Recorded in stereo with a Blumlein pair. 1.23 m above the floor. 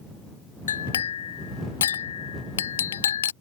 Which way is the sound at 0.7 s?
65° left.